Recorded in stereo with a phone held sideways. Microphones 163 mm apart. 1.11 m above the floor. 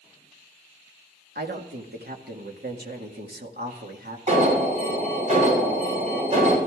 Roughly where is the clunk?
I don't hear a clunk.